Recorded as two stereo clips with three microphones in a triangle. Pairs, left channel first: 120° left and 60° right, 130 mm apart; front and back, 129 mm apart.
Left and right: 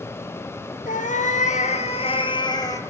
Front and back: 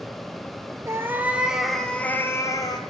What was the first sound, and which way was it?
A cat meowing, 110° left.